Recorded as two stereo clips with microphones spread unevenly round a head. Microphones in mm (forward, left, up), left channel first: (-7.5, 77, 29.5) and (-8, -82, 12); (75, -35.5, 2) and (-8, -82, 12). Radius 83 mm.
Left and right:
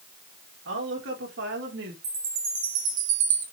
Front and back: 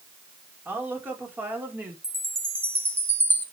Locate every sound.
0.7 s a woman speaking: 80° right, 5 m
2.0 s a chime: 85° right, 5.5 m